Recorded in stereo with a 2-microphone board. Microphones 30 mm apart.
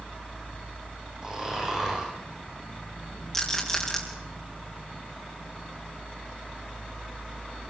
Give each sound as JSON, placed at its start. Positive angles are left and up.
{"t": 1.2, "sound": "snoring", "side_deg": -20, "distance_m": 10.0}
{"t": 3.3, "sound": "a rattle", "side_deg": 15, "distance_m": 6.0}